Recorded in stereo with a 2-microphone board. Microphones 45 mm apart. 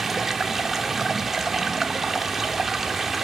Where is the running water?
5° right (ahead or behind), 0.9 m.